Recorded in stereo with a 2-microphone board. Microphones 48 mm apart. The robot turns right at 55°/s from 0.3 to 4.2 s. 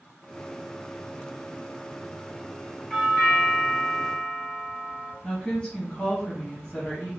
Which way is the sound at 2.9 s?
20° left (ahead or behind).